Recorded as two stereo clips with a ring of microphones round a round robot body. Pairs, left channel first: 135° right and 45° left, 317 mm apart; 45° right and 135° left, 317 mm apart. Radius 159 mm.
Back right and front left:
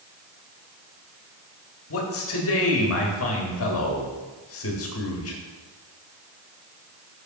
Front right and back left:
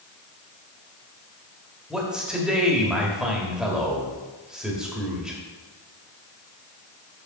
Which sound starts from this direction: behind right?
A man speaking, at 1.9 s.